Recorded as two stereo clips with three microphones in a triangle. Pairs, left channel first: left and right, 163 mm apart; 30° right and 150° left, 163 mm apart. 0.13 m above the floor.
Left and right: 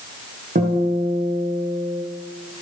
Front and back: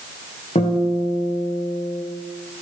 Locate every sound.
0.6 s a guitar: 75° right, 8.5 m